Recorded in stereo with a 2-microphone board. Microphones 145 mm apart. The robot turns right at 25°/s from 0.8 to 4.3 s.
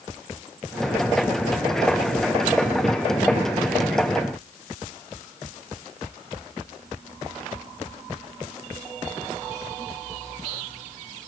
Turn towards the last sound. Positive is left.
No sound to turn to.